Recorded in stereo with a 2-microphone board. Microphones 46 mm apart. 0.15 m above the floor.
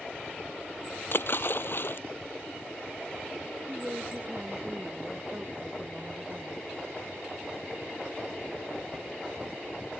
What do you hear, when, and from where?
1.1 s a splash: 55° left (ahead or behind)
3.7 s a woman speaking: 35° right (ahead or behind)